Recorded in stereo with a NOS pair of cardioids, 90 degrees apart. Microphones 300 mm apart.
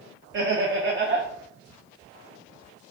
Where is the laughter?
40° right, 0.6 m.